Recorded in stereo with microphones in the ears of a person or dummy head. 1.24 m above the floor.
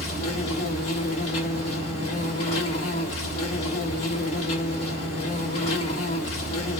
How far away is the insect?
About 1.1 m.